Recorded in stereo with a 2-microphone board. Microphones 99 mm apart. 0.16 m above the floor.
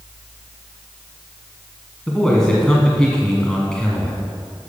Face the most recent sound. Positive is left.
turn(degrees=10)  # may be behind; listen again after turning